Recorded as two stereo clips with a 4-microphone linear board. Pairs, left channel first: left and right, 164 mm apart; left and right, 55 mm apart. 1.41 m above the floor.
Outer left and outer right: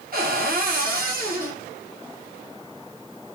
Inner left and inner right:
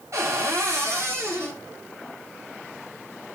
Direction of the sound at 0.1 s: 60° right (ahead or behind).